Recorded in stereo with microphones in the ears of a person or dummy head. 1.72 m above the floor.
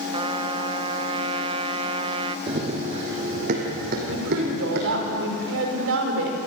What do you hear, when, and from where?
0.1 s a trumpet: 25° right (ahead or behind), 1.0 m
2.5 s running footsteps: 30° right (ahead or behind), 3.5 m; by 5.1 s 65° right (ahead or behind), 5 m
4.1 s a woman speaking: 75° right (ahead or behind), 5.5 m